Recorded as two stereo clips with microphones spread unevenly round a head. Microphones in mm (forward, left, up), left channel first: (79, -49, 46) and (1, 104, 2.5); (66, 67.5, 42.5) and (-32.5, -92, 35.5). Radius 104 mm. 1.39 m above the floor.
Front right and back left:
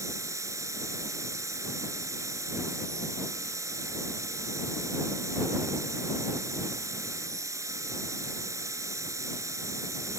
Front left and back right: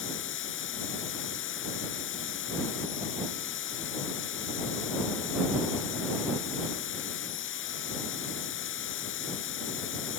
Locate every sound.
0.0 s a machine running: 40° left